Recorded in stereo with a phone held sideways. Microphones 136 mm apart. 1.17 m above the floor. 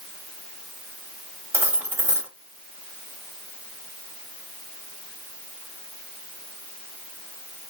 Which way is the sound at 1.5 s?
20° right (ahead or behind).